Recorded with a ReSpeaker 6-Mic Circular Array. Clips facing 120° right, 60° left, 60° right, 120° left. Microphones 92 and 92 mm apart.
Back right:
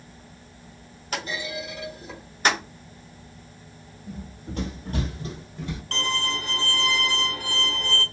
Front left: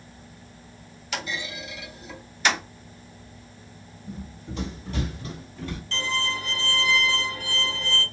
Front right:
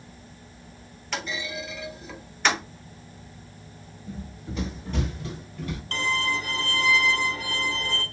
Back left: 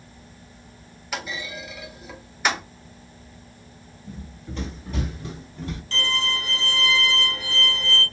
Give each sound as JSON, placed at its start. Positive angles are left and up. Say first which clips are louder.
{"t": 1.1, "sound": "a clunk", "louder": "back right 2 dB, even", "azimuth_deg": -160, "distance_m": 1.2}
{"t": 4.1, "sound": "running footsteps", "louder": "even, front right 1 dB", "azimuth_deg": -130, "distance_m": 2.0}
{"t": 5.9, "sound": "a violin", "louder": "back right 1 dB, front right 1 dB", "azimuth_deg": -100, "distance_m": 1.3}